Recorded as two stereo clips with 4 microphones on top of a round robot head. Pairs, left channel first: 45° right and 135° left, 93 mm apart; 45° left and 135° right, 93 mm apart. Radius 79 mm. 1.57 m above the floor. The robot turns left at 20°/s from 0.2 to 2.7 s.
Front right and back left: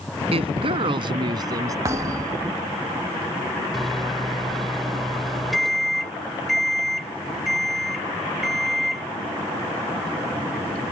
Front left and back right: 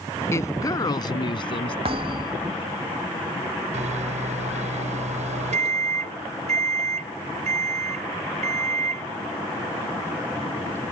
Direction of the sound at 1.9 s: 165° right.